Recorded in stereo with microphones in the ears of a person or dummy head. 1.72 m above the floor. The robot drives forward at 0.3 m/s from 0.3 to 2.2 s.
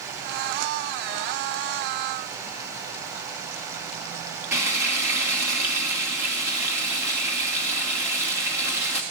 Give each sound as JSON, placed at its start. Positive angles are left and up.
{"t": 4.5, "sound": "frying", "side_deg": -15, "distance_m": 1.3}